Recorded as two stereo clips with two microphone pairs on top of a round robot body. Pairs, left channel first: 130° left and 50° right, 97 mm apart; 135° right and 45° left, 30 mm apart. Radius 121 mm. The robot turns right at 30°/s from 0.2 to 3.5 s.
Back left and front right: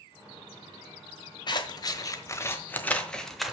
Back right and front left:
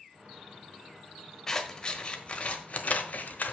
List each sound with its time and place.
1.5 s scissors: 155° left, 1.2 m; by 3.5 s 145° right, 1.2 m